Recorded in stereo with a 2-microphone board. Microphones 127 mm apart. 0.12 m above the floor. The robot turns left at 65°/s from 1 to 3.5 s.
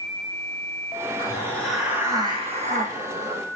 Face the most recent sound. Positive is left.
turn(degrees=-115)